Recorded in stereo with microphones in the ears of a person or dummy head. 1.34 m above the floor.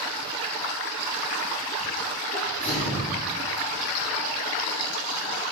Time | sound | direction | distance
2.3 | a sneeze | 40° left (ahead or behind) | 4 m